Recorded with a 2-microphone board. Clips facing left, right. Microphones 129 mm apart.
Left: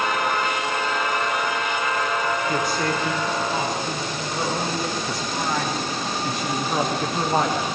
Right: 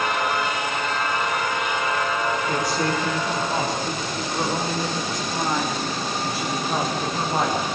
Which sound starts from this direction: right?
A woman speaking, at 2.5 s.